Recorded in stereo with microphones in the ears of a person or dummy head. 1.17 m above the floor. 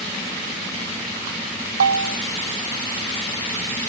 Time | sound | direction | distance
1.8 | a bell | 70° right (ahead or behind) | 0.9 m